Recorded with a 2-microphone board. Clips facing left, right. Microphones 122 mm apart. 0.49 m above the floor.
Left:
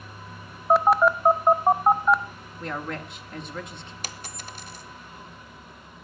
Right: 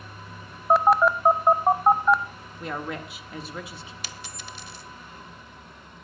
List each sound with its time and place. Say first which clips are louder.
0.7 s a phone buzzing: even; centre (ahead or behind), 0.7 m
2.6 s a woman speaking: even; 5° right (ahead or behind), 1.2 m
4.0 s a dropped coin: left 1 dB; 45° left (ahead or behind), 1.0 m